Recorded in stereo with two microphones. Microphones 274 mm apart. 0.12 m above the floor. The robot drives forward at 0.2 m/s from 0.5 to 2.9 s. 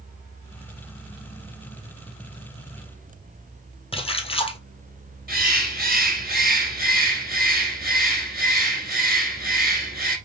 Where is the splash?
20° left (ahead or behind), 0.6 m.